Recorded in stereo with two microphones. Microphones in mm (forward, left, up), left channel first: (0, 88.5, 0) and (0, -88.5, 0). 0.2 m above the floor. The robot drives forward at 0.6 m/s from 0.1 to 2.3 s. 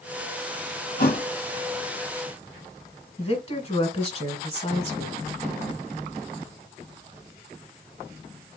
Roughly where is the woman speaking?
Left.